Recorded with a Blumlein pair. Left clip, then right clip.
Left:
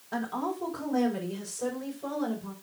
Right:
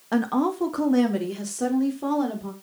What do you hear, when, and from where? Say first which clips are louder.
0.1 s a woman speaking: right 8 dB; 40° right, 2 m